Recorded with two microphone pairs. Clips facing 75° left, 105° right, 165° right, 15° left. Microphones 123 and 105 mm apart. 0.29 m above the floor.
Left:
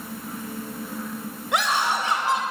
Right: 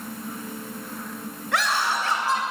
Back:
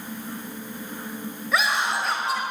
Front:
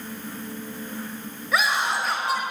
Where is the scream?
105° left, 1.1 m.